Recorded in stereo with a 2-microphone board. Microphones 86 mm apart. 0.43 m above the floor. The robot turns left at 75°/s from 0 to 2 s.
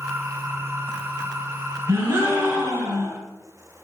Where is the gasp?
45° right (ahead or behind), 1.0 m; by 3.2 s 40° right (ahead or behind), 1.0 m.